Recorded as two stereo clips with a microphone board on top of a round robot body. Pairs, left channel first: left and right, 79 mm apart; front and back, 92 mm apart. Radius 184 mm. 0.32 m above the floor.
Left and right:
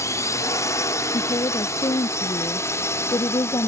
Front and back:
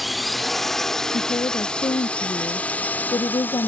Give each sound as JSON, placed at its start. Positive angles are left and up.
{"t": 0.0, "sound": "a drone", "azimuth_deg": 90}
{"t": 1.1, "sound": "a woman speaking", "azimuth_deg": 50}